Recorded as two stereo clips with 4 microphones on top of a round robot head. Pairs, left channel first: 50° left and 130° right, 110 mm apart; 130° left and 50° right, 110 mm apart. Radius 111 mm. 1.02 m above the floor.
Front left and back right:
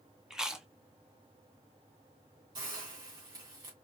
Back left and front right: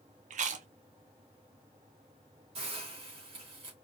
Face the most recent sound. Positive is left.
turn(degrees=-85)